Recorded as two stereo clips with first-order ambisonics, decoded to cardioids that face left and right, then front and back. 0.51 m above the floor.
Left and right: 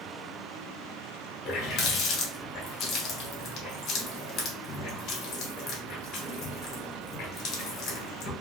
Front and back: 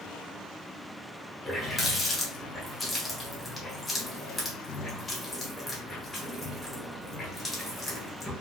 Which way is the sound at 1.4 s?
75° left.